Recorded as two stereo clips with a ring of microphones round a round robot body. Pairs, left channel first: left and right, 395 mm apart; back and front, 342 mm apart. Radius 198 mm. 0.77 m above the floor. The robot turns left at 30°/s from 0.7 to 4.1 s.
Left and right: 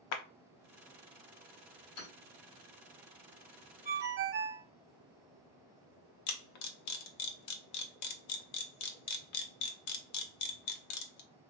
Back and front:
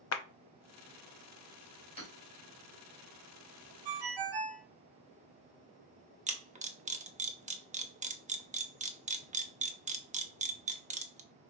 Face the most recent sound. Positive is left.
turn(degrees=70)